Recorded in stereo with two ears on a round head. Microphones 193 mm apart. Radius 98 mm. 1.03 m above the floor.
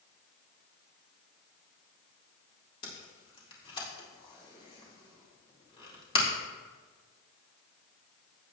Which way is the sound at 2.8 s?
25° left (ahead or behind).